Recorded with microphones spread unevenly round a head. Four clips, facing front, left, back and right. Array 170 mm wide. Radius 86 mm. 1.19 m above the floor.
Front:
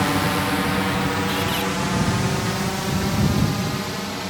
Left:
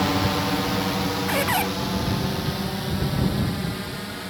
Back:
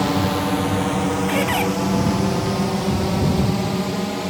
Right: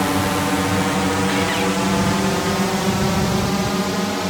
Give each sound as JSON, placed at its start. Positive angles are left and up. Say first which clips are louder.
{"t": 0.0, "sound": "a drone", "louder": "right 4 dB, back 1 dB", "azimuth_deg": -130}
{"t": 1.3, "sound": "a squeak", "louder": "right 4 dB, back 4 dB", "azimuth_deg": 145}